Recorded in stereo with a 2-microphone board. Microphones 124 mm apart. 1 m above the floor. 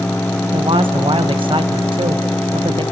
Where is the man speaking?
45° right (ahead or behind), 0.9 m.